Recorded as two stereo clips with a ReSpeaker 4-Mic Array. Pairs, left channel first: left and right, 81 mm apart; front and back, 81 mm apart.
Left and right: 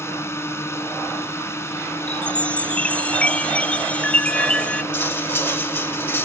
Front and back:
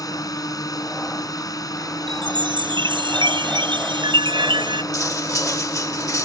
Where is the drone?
35° left.